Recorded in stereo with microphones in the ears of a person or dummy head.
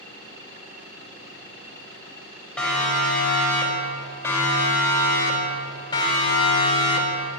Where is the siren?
5° left (ahead or behind), 6 m; by 7.4 s 35° left (ahead or behind), 3.5 m.